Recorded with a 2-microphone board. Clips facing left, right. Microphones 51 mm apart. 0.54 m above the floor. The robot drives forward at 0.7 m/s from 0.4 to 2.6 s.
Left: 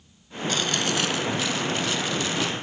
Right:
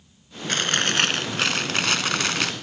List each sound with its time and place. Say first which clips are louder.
0.5 s chewing: right 2 dB; 45° right (ahead or behind); by 2.5 s 75° right (ahead or behind)